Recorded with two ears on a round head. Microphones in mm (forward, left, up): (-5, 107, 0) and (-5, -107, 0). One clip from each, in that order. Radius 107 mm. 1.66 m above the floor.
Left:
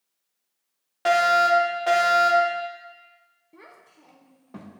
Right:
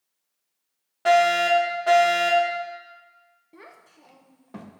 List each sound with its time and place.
1.1 s a fire alarm: 25° left (ahead or behind), 2.5 m
3.5 s a child speaking: 10° right (ahead or behind), 0.8 m